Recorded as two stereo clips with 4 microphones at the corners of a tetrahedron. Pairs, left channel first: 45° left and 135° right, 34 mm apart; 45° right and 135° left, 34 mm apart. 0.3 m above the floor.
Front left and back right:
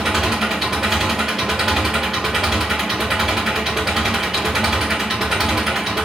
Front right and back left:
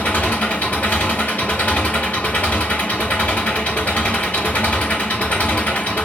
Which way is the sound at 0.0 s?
60° right.